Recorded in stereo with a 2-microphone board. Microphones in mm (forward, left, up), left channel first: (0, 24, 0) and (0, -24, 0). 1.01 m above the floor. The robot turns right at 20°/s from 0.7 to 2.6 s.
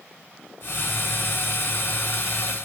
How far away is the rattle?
I don't hear a rattle.